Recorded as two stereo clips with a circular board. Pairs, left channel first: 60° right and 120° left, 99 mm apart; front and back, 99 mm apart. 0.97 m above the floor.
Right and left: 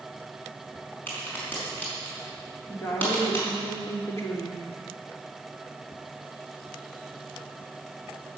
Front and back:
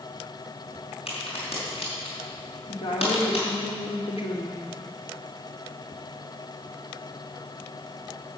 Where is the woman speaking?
Straight ahead, 2.5 m.